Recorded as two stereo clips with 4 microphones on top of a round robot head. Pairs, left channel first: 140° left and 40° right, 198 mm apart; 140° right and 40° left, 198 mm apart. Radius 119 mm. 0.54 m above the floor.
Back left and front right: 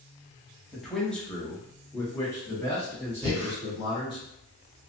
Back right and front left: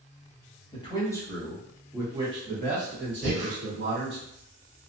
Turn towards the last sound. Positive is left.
turn(degrees=5)